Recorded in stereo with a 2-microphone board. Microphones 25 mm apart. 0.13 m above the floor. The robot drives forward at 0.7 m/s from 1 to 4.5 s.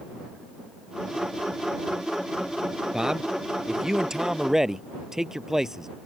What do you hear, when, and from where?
2.9 s a man speaking: 25° right (ahead or behind); by 5.9 s 20° right (ahead or behind)